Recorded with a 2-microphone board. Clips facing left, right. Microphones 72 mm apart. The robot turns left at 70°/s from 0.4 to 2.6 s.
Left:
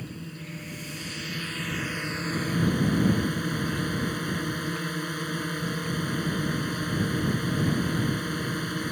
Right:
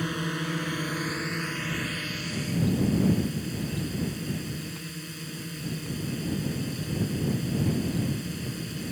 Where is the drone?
85° right; by 8.9 s 120° left.